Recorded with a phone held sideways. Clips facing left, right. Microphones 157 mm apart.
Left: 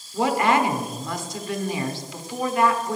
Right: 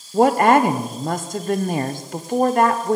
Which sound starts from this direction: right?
A woman speaking, at 0.1 s.